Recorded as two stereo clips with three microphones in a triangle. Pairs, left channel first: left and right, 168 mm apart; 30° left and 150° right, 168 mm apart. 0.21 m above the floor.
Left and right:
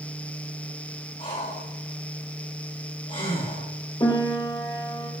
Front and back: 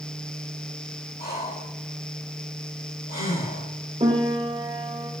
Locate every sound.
1.2 s breathing: 50° left, 5 m
4.0 s a piano: 155° left, 1.6 m